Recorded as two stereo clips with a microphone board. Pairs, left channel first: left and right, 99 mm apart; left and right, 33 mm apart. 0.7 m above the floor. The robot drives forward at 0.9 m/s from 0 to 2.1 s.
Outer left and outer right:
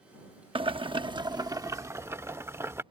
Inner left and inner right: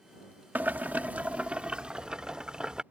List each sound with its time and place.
0.6 s boiling: 60° right (ahead or behind); by 2.8 s 25° right (ahead or behind)